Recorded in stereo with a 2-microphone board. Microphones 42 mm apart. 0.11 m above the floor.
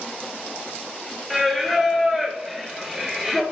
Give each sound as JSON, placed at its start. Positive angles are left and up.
{"t": 1.3, "sound": "singing", "side_deg": -5, "distance_m": 1.3}